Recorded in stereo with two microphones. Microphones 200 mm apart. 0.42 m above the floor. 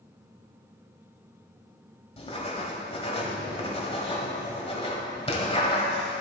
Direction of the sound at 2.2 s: 30° left (ahead or behind).